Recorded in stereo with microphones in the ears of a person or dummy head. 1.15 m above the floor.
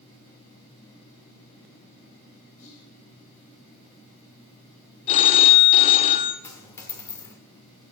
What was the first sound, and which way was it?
Whispering, 75° left (ahead or behind).